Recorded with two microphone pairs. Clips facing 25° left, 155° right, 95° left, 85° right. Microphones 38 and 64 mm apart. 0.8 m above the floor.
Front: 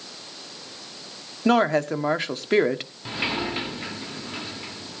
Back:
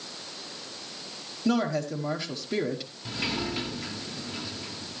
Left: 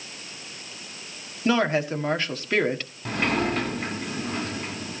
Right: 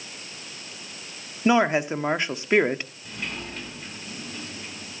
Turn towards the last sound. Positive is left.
turn(degrees=90)